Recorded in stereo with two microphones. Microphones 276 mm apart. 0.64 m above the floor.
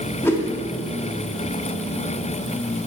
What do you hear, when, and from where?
0.2 s a whoosh: 10° left (ahead or behind), 1.5 m